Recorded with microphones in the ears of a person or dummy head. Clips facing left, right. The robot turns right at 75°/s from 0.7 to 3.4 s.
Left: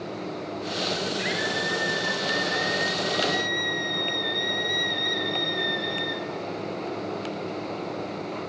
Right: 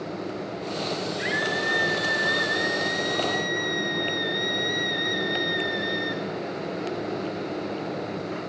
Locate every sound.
1.2 s a scream: straight behind, 6 m; by 6.2 s 15° right, 6 m